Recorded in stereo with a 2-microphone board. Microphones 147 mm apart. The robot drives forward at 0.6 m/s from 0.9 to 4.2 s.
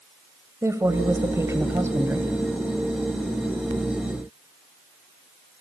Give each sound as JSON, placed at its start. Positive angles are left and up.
{"t": 0.6, "sound": "a woman speaking", "side_deg": -20, "distance_m": 1.1}